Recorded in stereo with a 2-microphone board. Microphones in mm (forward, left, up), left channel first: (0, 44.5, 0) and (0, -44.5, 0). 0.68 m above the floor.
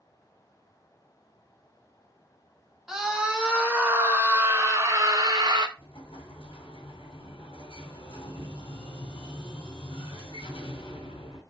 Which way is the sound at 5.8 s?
85° left.